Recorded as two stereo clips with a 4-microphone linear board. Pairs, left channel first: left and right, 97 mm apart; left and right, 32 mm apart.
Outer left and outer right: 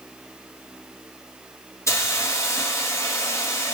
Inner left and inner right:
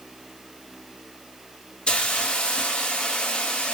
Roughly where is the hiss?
Left.